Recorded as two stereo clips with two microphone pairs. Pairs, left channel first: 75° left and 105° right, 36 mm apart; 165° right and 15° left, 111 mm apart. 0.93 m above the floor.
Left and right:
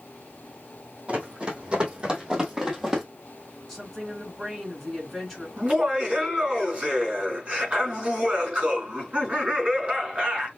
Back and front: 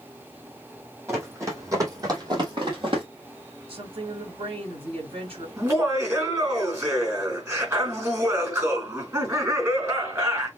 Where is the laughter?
50° right, 4.5 m.